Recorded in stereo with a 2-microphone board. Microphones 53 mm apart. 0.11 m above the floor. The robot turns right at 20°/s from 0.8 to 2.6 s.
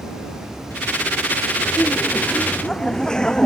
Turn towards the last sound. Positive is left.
turn(degrees=15)  # may be behind; listen again after turning